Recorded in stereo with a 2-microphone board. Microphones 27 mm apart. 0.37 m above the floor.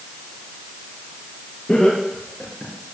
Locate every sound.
1.7 s laughter: 45° left (ahead or behind), 6.5 m; by 2.7 s 30° left (ahead or behind), 5.5 m